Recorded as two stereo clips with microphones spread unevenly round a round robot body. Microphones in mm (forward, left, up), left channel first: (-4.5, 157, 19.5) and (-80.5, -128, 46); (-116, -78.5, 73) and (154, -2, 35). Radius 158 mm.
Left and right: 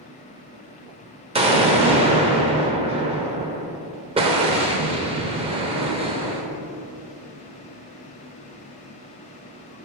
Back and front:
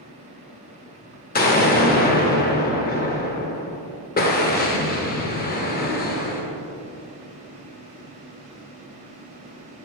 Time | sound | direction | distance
1.4 | an explosion | 160° right | 1.4 m